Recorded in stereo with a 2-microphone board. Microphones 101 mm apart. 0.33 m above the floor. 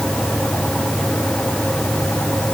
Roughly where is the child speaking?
I don't hear a child speaking.